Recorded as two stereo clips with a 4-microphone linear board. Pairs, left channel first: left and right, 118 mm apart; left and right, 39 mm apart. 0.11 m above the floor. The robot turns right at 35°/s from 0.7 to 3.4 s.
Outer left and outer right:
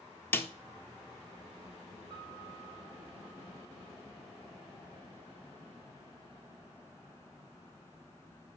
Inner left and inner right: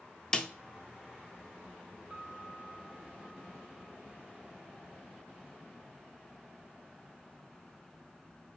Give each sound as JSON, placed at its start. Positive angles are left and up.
{"t": 0.3, "sound": "a snare drum", "side_deg": 15, "distance_m": 0.5}
{"t": 2.1, "sound": "a piano", "azimuth_deg": -70, "distance_m": 1.2}